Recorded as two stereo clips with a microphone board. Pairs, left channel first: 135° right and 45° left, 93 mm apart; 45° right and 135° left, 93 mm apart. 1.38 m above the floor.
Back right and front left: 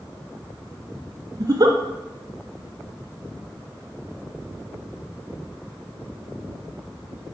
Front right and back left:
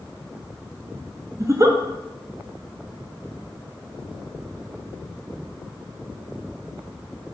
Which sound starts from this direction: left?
A giggle, at 1.4 s.